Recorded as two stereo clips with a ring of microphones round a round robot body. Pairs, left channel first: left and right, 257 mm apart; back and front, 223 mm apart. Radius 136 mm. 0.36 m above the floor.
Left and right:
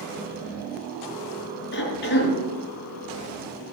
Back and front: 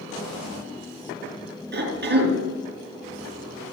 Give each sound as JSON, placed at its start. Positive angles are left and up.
{"t": 1.7, "sound": "a cough", "azimuth_deg": 40, "distance_m": 4.5}